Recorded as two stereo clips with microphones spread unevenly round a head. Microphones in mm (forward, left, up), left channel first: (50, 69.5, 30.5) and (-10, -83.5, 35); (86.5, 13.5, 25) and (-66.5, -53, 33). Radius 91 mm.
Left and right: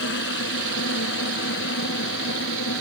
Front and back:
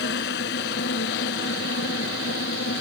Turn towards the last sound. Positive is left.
turn(degrees=60)